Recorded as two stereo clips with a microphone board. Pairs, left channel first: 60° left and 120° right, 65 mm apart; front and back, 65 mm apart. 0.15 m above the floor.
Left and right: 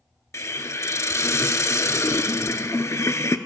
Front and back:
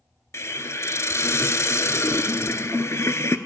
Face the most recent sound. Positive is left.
turn(degrees=35)